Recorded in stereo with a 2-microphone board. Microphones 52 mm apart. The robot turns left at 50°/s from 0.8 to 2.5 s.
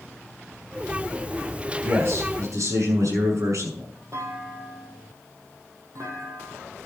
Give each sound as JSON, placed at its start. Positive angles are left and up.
{"t": 1.8, "sound": "a man speaking", "azimuth_deg": -40, "distance_m": 6.5}
{"t": 4.1, "sound": "a clunk", "side_deg": -65, "distance_m": 4.5}